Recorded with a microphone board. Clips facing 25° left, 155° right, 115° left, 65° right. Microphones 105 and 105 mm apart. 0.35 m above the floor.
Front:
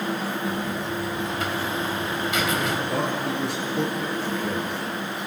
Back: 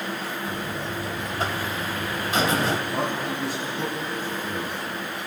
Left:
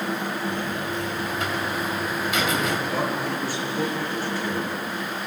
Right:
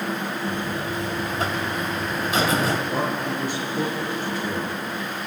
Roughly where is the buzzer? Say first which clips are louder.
Front 3 dB, right 1 dB; right.